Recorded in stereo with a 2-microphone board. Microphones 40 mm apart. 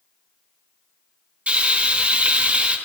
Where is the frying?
40° right (ahead or behind), 3 m.